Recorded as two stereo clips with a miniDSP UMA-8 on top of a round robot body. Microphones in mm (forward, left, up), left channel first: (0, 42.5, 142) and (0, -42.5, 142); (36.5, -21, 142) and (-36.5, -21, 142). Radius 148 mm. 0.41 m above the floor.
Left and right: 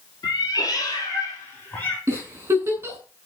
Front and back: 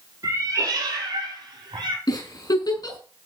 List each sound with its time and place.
0.2 s a cat meowing: 130° left, 3.5 m; by 2.0 s 160° left, 4 m
2.1 s a giggle: 30° right, 7 m